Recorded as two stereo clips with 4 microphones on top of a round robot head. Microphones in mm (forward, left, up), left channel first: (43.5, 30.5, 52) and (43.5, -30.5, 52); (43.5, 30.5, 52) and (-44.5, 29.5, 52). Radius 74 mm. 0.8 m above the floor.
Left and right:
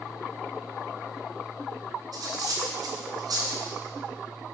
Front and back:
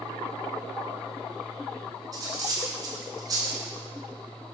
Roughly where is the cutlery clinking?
Behind right.